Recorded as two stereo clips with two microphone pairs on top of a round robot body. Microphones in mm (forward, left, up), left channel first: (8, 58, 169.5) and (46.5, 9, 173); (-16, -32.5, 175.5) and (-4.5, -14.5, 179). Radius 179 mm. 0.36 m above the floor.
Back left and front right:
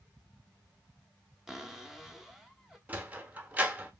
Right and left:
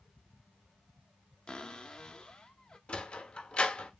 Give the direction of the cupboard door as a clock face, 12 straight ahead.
5 o'clock.